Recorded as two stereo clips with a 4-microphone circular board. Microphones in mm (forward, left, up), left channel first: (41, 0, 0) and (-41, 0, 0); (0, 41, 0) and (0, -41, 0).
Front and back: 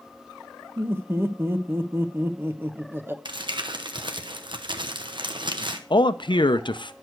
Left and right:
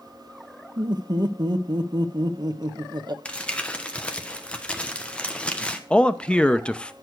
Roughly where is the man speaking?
Ahead.